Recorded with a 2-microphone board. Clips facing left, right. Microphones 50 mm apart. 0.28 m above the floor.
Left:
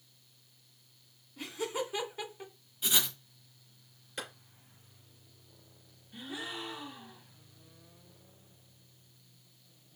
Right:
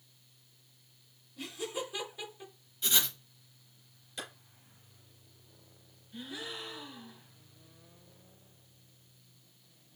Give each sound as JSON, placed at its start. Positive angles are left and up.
{"t": 1.4, "sound": "laughter", "side_deg": 30, "distance_m": 2.5}
{"t": 2.8, "sound": "writing", "side_deg": 5, "distance_m": 1.1}
{"t": 4.2, "sound": "a clap", "side_deg": 30, "distance_m": 3.5}
{"t": 6.1, "sound": "a gasp", "side_deg": 25, "distance_m": 1.3}